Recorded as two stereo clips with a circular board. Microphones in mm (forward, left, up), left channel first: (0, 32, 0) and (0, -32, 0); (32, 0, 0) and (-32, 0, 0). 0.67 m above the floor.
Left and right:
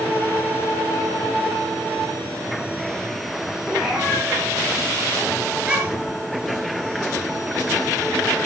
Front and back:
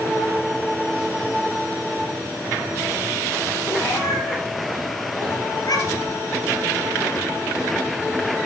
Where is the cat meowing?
5° right, 5 m; by 6.2 s 20° right, 3 m.